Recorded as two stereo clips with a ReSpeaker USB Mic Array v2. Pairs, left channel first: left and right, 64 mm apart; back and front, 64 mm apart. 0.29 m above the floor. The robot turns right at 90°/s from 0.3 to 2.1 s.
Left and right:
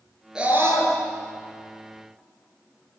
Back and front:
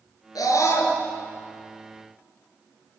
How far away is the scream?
About 6 m.